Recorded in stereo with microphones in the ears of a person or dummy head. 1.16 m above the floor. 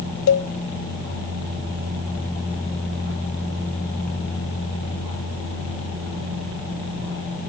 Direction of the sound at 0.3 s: 60° left (ahead or behind).